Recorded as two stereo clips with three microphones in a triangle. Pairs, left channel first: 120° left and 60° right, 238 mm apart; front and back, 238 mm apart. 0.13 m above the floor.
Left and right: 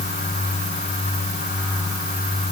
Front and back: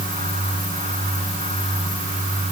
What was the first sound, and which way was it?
Only background noise.